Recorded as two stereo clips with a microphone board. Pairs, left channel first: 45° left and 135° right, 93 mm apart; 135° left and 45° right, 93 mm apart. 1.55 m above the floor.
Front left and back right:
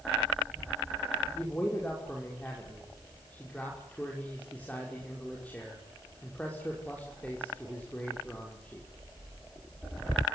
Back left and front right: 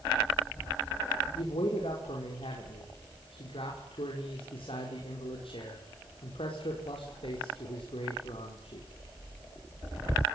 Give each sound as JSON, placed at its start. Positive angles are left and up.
{"t": 1.4, "sound": "a man speaking", "azimuth_deg": 120, "distance_m": 6.0}